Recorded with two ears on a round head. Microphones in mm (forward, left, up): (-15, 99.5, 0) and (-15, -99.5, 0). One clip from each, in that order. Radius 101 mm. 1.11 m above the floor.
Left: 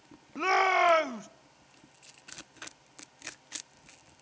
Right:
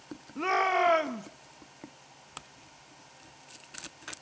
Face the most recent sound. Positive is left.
turn(degrees=25)  # may be behind; listen again after turning